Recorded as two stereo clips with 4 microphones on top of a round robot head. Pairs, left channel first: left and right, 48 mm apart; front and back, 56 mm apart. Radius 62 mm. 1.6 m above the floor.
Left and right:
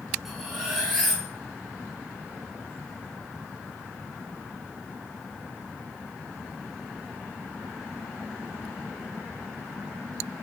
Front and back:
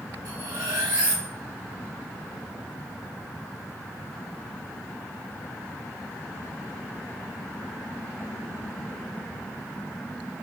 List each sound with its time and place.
0.2 s cutlery clinking: 175° right, 0.8 m